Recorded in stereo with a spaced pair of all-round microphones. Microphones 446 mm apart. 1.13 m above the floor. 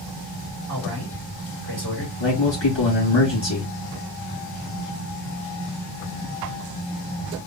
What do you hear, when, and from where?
0.7 s a man speaking: 55° left (ahead or behind), 2.5 m
2.2 s a man speaking: 70° left (ahead or behind), 2 m